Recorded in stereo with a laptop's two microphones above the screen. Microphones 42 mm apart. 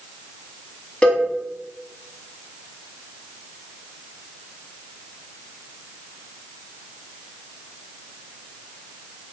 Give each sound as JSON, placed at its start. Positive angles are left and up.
{"t": 1.0, "sound": "a cowbell", "side_deg": 25, "distance_m": 1.3}